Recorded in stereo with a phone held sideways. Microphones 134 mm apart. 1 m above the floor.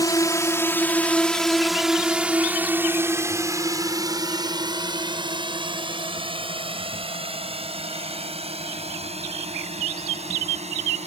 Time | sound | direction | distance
0.0 | a drone | 30° left (ahead or behind) | ?